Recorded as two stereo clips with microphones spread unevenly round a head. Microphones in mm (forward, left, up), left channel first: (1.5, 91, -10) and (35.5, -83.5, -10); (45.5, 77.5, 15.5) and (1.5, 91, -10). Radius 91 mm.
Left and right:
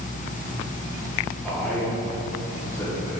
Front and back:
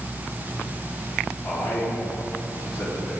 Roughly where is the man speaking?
Ahead.